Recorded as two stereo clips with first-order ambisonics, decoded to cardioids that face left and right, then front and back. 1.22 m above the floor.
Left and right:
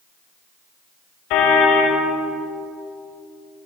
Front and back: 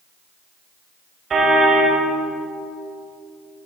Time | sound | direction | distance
1.3 | a car horn | 115° left | 3.5 m